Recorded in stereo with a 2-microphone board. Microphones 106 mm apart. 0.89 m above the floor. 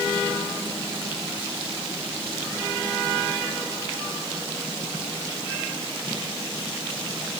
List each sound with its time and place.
Only background noise.